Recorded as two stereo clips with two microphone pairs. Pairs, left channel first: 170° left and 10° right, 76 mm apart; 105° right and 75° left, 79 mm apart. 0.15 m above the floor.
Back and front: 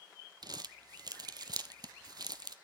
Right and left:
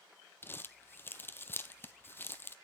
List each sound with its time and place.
0.4 s crumpling: 40° right, 0.7 m